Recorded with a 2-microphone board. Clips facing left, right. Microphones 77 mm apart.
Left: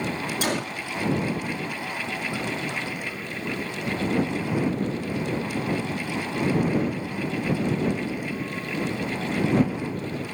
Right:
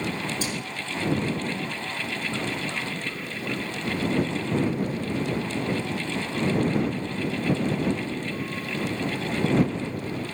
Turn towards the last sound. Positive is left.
turn(degrees=70)  # may be behind; listen again after turning